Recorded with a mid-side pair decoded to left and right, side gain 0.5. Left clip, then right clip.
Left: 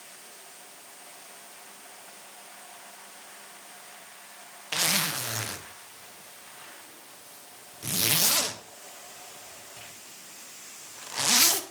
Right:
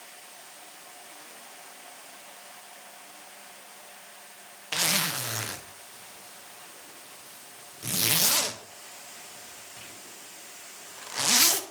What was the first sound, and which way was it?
A zipper, straight ahead.